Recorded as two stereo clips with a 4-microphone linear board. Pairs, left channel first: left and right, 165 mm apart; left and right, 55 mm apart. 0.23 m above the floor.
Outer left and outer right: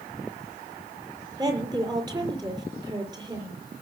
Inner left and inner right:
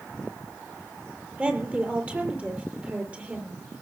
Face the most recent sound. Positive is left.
turn(degrees=-25)  # may be behind; listen again after turning